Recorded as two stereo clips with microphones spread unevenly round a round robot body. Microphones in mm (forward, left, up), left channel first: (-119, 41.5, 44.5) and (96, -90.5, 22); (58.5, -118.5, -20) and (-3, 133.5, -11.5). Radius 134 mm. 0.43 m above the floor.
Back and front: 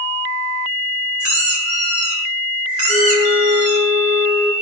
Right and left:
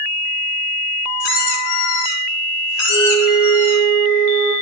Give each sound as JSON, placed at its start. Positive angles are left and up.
{"t": 1.2, "sound": "a squeak", "azimuth_deg": -65, "distance_m": 5.5}
{"t": 2.9, "sound": "a flute", "azimuth_deg": -75, "distance_m": 3.0}